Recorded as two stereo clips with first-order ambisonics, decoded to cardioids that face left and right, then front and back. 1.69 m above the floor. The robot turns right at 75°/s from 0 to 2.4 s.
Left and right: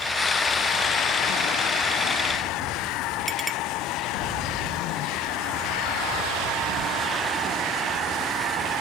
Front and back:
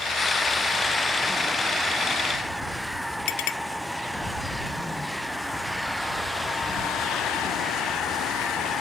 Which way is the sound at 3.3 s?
Straight ahead.